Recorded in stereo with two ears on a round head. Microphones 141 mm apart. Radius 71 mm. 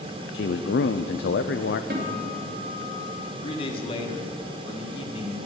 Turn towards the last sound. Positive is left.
turn(degrees=35)  # may be behind; listen again after turning